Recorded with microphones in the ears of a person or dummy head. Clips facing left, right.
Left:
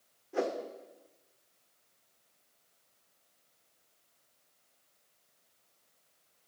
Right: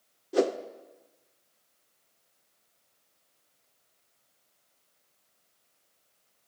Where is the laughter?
No laughter in this recording.